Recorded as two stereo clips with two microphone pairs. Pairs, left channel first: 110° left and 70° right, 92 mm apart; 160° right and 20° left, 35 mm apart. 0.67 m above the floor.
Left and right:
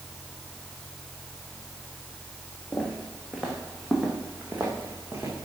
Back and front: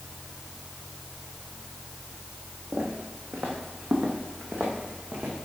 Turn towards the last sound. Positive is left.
turn(degrees=-10)